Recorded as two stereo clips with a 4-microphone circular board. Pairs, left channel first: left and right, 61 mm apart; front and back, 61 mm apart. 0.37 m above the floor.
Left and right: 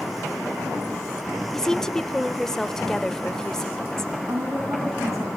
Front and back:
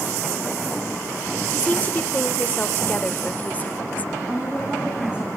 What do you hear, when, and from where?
1.5 s a woman speaking: 20° left, 1.0 m
4.3 s a woman speaking: 110° right, 3 m